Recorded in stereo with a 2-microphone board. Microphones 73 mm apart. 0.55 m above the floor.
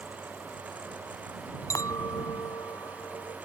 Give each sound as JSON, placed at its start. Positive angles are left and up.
{"t": 1.7, "sound": "a clink", "side_deg": 50}